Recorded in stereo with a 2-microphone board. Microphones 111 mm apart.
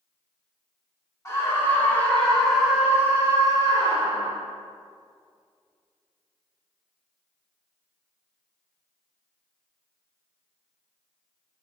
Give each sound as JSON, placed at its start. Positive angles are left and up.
{"t": 1.2, "sound": "a scream", "side_deg": 25, "distance_m": 3.0}